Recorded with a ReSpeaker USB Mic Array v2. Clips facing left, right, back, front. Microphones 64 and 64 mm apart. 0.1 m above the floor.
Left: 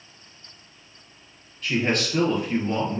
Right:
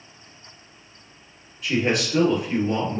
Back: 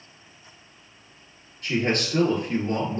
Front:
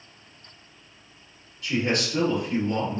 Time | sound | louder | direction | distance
1.6 | a man speaking | right 1 dB, back 1 dB | 170° right | 1.8 m